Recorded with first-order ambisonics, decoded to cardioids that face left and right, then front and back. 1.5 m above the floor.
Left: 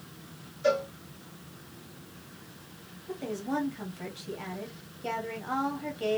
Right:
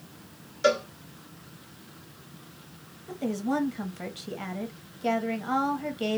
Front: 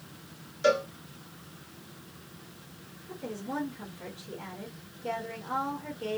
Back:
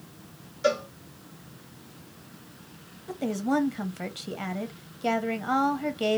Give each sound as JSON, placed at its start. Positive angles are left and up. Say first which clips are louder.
{"t": 0.6, "sound": "a cowbell", "louder": "right 3 dB, front 1 dB", "azimuth_deg": -80, "distance_m": 0.9}
{"t": 3.1, "sound": "a woman speaking", "louder": "right 3 dB, back 9 dB", "azimuth_deg": -160, "distance_m": 0.8}